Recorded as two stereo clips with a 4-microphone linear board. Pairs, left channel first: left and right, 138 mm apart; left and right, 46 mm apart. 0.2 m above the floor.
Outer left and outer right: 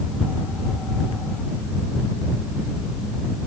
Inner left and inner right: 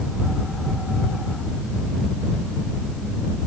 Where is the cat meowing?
No cat meowing in this recording.